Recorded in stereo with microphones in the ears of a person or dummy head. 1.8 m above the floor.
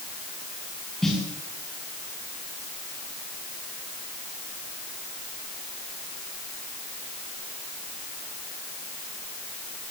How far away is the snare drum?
About 8.5 m.